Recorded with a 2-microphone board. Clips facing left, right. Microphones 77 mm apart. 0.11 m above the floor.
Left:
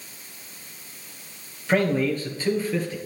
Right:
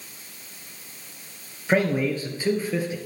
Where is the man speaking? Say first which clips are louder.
Even; 15° right (ahead or behind), 1.8 m.